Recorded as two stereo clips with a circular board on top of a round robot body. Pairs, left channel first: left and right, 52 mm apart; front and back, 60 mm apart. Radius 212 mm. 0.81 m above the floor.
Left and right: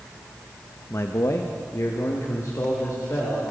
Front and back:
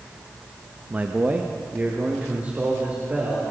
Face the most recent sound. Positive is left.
turn(degrees=115)